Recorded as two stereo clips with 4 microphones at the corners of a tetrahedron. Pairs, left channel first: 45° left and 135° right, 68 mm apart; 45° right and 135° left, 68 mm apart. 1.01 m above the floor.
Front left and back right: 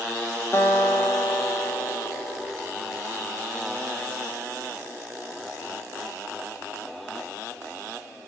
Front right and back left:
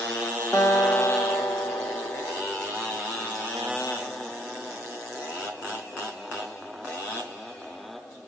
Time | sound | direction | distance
0.5 | a guitar | 5° right | 0.6 m